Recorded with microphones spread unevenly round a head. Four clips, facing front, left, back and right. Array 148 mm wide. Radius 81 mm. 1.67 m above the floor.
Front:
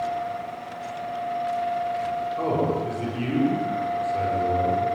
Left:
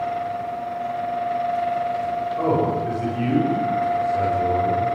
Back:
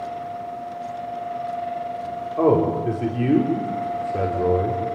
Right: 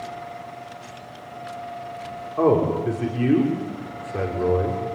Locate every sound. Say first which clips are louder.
2.4 s a man speaking: right 4 dB, back 8 dB; 145° right, 6.5 m